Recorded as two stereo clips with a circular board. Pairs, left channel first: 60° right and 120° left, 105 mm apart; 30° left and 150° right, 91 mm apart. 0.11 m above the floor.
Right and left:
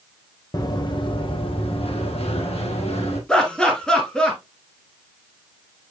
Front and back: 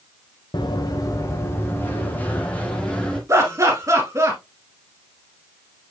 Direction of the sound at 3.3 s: 140° right.